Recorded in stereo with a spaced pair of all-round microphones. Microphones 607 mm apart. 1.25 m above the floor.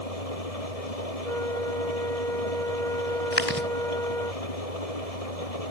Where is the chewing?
20° left (ahead or behind).